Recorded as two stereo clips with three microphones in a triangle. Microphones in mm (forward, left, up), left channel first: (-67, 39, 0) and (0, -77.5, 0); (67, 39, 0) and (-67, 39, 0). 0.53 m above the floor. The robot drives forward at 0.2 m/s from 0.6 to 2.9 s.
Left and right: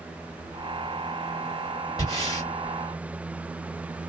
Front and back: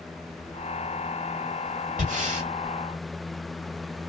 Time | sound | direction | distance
2.0 | breathing | straight behind | 1.3 m